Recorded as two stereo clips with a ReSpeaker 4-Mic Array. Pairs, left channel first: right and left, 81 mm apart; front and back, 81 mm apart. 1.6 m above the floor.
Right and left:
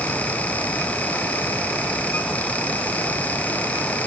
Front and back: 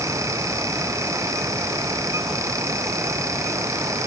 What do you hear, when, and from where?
Only background noise.